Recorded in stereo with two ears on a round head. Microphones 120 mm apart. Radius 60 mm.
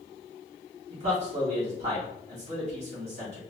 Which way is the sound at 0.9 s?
50° right (ahead or behind).